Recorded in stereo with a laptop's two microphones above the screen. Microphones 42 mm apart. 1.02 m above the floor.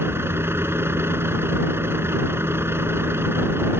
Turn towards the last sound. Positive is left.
turn(degrees=-75)  # may be behind; listen again after turning